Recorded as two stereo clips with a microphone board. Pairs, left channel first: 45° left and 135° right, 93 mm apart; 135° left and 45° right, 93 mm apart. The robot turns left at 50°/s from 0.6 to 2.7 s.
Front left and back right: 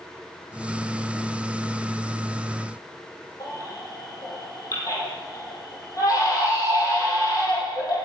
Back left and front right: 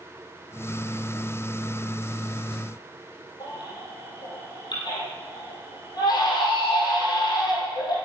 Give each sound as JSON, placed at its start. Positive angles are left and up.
{"t": 3.4, "sound": "a baby crying", "azimuth_deg": 95, "distance_m": 3.5}